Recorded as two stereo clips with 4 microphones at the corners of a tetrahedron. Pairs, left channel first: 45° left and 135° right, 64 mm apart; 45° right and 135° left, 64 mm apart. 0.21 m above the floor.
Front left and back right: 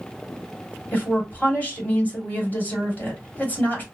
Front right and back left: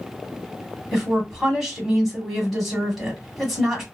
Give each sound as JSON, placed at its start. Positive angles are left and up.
{"t": 0.9, "sound": "a woman speaking", "azimuth_deg": 60, "distance_m": 1.3}